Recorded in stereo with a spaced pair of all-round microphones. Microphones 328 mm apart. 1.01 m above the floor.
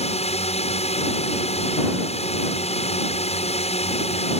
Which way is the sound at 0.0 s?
20° left (ahead or behind).